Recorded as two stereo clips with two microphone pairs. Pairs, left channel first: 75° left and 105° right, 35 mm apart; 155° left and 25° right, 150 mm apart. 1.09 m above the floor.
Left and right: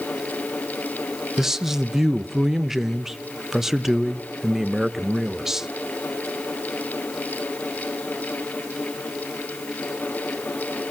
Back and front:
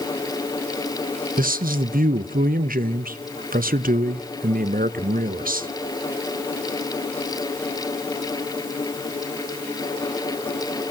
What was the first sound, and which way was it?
A man speaking, 25° right.